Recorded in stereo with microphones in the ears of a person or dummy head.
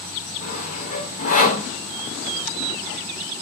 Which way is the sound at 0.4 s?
45° left (ahead or behind).